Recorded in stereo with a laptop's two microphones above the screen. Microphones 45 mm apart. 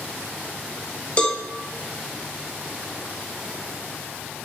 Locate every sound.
1.2 s a cowbell: 25° left (ahead or behind), 1.2 m